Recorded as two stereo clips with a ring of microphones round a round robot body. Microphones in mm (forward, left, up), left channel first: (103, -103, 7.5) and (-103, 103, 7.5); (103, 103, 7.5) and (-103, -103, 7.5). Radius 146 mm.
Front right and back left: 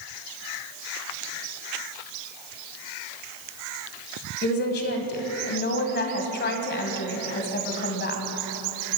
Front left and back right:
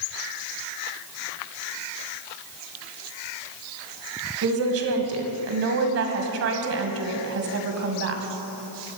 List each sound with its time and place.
4.4 s a woman speaking: 100° right, 2 m